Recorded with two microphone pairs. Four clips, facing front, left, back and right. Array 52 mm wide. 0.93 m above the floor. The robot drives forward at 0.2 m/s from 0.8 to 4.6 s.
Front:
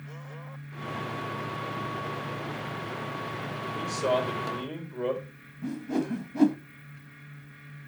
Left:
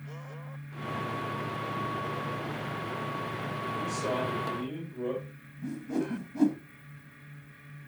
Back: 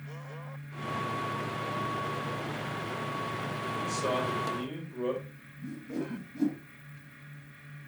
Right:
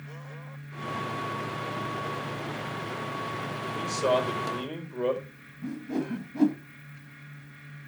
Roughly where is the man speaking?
Right.